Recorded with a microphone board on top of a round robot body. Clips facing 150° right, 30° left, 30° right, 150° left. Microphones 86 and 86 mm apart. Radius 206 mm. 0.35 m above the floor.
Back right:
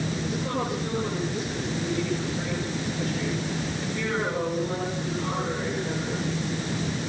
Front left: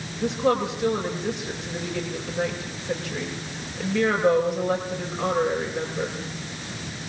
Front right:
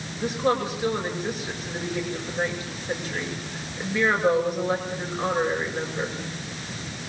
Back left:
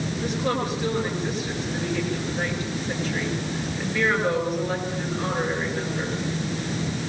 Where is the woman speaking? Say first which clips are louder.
Front left 11 dB, front right 3 dB; 45° left, 8.5 m.